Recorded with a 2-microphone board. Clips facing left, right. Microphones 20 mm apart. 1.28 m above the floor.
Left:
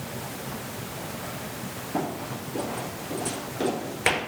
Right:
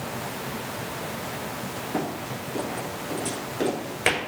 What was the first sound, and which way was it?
Running footsteps, 35° right (ahead or behind).